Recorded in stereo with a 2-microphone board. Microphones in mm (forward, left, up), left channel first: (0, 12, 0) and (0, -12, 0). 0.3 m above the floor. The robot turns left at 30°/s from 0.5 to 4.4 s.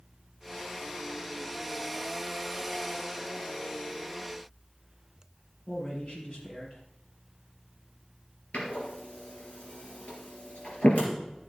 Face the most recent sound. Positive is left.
turn(degrees=65)  # may be behind; listen again after turning